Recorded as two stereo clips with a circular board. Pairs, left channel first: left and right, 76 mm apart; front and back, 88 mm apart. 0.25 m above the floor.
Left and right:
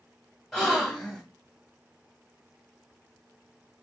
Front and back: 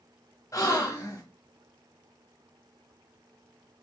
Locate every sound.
0.5 s a gasp: 10° left, 1.0 m